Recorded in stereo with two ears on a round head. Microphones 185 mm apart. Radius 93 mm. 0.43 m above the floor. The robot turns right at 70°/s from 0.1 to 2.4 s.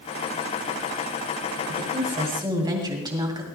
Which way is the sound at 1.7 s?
75° right.